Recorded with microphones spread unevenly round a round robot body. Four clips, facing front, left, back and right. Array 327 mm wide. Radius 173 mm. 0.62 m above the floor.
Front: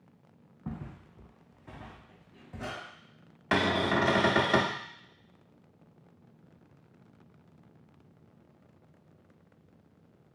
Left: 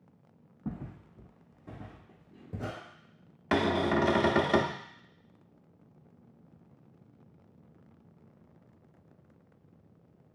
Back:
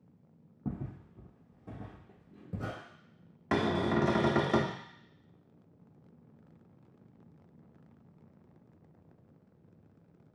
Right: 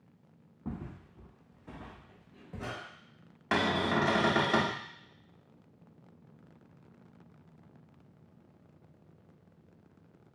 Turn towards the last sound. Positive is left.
turn(degrees=100)